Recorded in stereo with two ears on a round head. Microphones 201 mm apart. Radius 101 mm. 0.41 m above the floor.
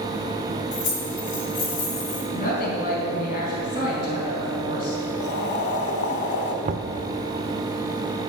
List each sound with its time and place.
0.7 s keys jangling: 35° left (ahead or behind), 4 m; by 2.2 s 45° left (ahead or behind), 3 m
2.3 s a woman speaking: 40° left (ahead or behind), 4 m
5.2 s boiling: 50° left (ahead or behind), 1.0 m
6.7 s knocking: 35° right (ahead or behind), 0.5 m